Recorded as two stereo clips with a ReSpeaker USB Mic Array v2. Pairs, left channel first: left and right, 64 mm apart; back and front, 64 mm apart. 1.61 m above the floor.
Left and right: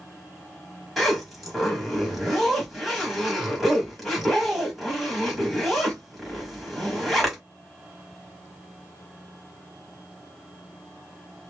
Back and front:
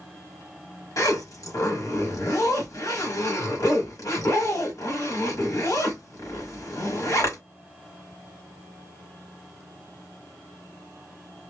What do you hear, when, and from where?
1.0 s a zipper: straight behind, 1.6 m